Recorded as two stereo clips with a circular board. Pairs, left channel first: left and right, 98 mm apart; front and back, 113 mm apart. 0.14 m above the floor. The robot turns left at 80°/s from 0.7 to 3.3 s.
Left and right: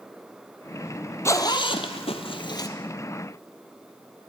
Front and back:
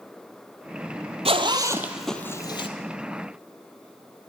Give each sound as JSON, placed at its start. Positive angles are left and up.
{"t": 1.2, "sound": "a zipper", "azimuth_deg": 150, "distance_m": 0.8}